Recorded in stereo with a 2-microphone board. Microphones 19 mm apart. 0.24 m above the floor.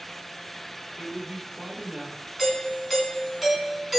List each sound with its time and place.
1.0 s a man speaking: 70° right (ahead or behind), 4 m
2.4 s a doorbell: 20° right (ahead or behind), 3 m